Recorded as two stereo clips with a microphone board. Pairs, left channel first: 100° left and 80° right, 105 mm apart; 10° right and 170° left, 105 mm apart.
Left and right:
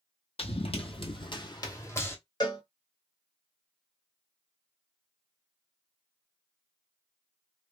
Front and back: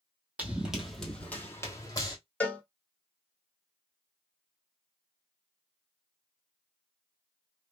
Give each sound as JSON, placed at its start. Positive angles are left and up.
{"t": 0.4, "sound": "running footsteps", "azimuth_deg": 95, "distance_m": 1.1}
{"t": 2.4, "sound": "a cowbell", "azimuth_deg": 60, "distance_m": 1.1}